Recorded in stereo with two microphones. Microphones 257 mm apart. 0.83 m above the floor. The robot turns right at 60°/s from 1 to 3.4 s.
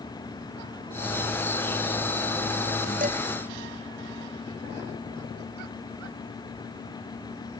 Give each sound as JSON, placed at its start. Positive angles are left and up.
{"t": 3.0, "sound": "dishes clattering", "side_deg": -35}